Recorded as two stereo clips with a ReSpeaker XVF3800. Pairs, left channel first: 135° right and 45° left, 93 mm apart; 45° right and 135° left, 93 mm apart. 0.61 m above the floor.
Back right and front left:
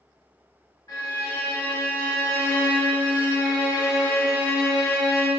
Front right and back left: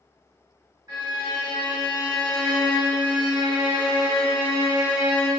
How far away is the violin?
About 1.7 m.